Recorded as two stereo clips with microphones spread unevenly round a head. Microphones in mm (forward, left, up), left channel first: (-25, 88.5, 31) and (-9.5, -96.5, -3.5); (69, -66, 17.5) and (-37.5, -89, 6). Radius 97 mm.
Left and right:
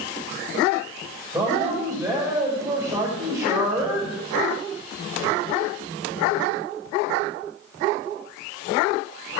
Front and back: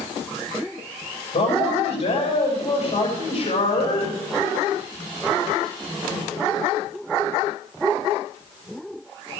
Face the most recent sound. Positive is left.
turn(degrees=-10)